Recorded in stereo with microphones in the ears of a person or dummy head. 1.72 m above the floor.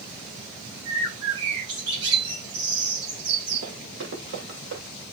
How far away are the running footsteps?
About 6.5 m.